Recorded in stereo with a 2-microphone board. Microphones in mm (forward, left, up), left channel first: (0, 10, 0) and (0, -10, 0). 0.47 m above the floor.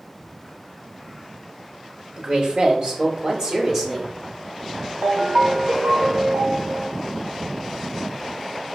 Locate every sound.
2.2 s a woman speaking: 55° right (ahead or behind), 1.6 m; by 4.2 s 5° right (ahead or behind), 0.9 m
5.0 s a ringtone: 65° right (ahead or behind), 0.6 m